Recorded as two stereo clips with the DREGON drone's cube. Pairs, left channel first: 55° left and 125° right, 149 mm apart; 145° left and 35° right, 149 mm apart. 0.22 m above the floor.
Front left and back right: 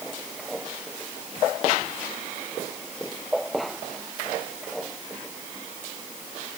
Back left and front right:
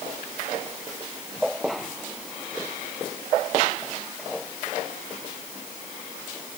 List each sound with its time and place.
Only background noise.